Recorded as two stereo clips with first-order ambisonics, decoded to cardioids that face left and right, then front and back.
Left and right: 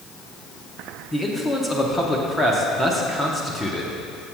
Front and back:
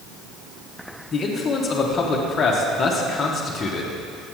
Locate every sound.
1.1 s a man speaking: 25° left, 0.8 m